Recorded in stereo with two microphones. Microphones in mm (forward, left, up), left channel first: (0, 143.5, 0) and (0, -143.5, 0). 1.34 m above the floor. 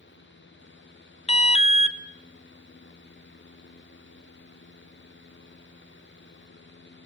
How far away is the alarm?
About 0.7 m.